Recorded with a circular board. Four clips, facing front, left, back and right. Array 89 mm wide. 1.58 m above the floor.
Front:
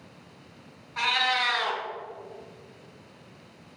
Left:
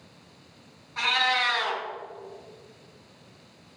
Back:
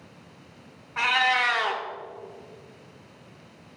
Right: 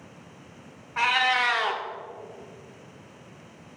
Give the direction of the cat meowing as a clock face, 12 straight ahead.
4 o'clock.